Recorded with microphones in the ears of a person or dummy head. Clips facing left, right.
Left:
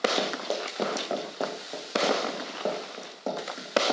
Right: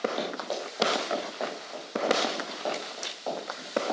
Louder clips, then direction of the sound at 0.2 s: Left 2 dB; 35° left (ahead or behind).